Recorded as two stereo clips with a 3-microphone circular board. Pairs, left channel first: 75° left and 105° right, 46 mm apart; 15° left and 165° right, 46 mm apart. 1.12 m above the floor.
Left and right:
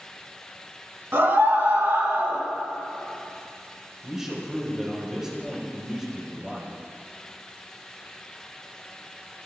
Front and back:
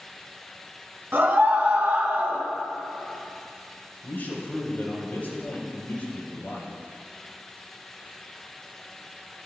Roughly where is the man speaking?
Ahead right.